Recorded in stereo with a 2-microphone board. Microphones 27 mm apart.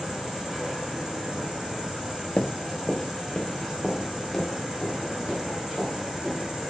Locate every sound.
0.0 s an insect: centre (ahead or behind), 5 m
2.4 s running footsteps: 50° left (ahead or behind), 0.5 m; by 6.4 s 30° left (ahead or behind), 6 m